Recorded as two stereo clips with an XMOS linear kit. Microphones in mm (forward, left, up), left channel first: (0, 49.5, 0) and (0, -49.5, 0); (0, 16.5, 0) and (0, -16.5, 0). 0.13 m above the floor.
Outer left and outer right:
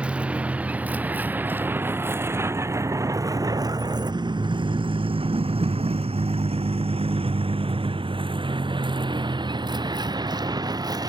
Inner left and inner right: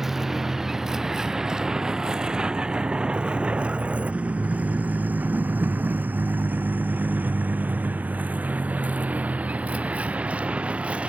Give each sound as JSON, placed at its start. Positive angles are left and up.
{"t": 0.0, "sound": "a vehicle", "side_deg": -10}